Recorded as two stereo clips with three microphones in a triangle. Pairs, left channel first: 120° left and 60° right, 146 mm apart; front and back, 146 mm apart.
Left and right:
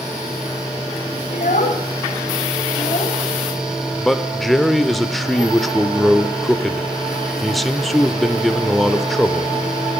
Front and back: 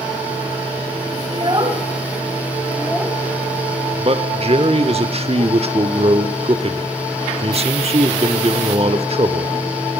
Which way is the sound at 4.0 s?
150° right.